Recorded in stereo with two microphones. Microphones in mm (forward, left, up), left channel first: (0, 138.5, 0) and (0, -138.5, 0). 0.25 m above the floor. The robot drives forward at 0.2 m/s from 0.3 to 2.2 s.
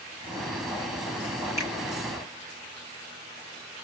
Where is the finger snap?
10° right (ahead or behind), 3 m.